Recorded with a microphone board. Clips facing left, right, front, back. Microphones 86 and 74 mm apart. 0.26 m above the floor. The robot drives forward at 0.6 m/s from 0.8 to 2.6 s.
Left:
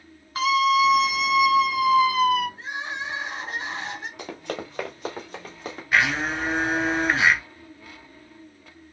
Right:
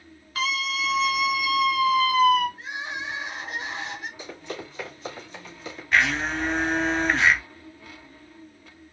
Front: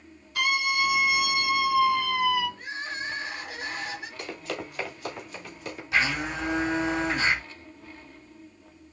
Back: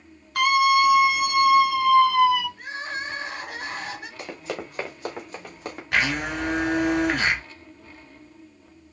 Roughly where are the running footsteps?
Left.